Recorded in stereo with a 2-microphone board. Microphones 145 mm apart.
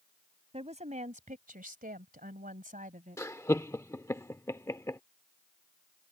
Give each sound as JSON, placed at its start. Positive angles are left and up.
{"t": 0.5, "sound": "a woman speaking", "side_deg": -45}
{"t": 3.2, "sound": "laughter", "side_deg": 20}